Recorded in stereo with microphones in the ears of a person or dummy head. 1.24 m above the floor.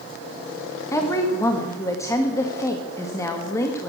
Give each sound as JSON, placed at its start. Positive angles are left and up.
{"t": 0.9, "sound": "a woman speaking", "side_deg": 20, "distance_m": 1.4}